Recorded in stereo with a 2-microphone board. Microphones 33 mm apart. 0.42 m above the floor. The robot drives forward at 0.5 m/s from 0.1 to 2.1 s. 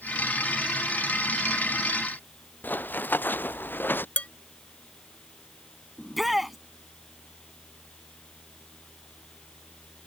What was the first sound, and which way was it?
Running footsteps, 65° left (ahead or behind).